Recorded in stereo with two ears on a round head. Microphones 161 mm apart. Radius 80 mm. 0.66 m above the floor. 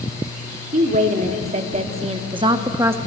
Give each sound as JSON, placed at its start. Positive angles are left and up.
{"t": 0.7, "sound": "a woman speaking", "side_deg": -45, "distance_m": 1.6}